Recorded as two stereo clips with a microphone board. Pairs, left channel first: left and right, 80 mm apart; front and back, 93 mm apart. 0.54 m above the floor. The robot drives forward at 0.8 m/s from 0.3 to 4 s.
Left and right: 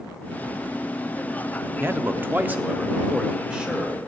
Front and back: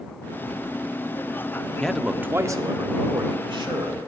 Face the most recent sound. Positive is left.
turn(degrees=-170)